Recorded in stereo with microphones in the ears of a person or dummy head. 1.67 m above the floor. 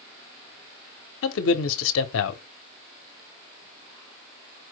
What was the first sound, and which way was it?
A man speaking, 75° left (ahead or behind).